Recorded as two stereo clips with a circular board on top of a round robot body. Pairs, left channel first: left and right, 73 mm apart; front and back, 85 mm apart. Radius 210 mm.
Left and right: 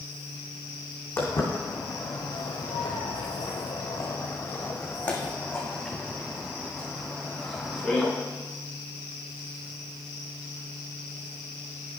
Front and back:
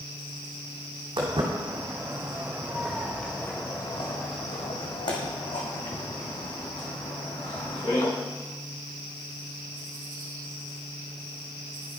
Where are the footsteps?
150° left, 2 m; by 8.1 s 5° left, 4.5 m.